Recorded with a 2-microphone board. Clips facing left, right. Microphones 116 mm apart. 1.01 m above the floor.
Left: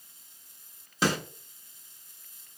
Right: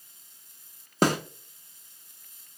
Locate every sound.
1.0 s a snare drum: 50° right (ahead or behind), 0.9 m